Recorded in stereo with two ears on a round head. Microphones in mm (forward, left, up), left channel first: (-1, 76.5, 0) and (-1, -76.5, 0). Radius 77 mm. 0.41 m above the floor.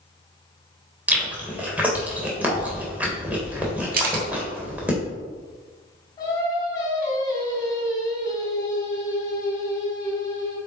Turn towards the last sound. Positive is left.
turn(degrees=25)  # may be behind; listen again after turning